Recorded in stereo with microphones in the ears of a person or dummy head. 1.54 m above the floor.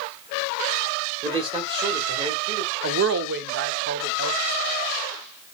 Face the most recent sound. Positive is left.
turn(degrees=-60)  # may be behind; listen again after turning